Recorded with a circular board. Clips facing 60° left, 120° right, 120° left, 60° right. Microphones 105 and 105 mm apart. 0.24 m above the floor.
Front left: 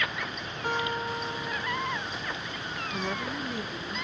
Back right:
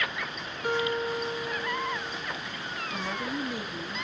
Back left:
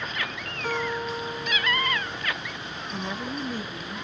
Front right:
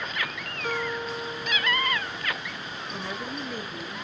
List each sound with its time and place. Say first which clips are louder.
0.6 s a guitar: back right 3 dB, back left 2 dB; 100° left, 1.5 m
2.9 s a woman speaking: even, back left 3 dB; 155° left, 1.8 m